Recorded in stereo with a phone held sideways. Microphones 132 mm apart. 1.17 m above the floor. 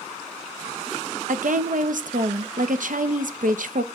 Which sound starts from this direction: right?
A woman speaking, at 1.3 s.